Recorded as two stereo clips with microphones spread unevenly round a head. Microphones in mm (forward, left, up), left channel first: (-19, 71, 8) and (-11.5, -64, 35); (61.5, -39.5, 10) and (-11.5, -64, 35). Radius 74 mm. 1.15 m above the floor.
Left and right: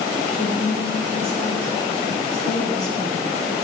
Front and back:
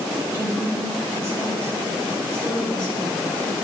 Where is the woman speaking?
100° right, 3 m.